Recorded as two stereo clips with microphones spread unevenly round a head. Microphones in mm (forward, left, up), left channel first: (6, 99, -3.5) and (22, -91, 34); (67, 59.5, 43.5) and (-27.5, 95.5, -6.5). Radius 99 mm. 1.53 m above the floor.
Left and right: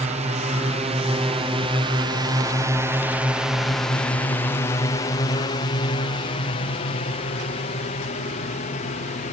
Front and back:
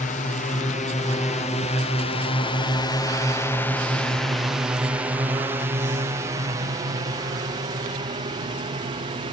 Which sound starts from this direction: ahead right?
A drone, at 0.0 s.